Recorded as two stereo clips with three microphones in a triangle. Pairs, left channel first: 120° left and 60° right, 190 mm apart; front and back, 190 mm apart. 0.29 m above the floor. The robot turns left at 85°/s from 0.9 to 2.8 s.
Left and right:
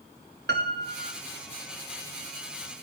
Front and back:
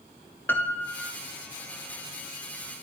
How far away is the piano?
About 1.6 m.